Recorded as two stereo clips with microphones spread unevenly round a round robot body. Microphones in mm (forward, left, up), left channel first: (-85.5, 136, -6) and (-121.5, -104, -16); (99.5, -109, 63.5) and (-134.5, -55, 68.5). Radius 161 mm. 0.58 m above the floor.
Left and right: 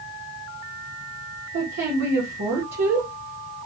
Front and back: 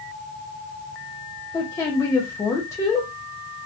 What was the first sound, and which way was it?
A woman speaking, 85° right.